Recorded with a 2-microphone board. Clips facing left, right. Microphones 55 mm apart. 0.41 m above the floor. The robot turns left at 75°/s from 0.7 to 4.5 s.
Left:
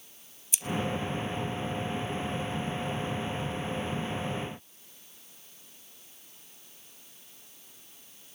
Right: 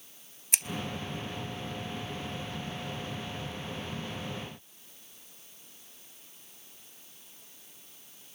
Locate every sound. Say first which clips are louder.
0.5 s scissors: right 5 dB; 55° right (ahead or behind), 0.7 m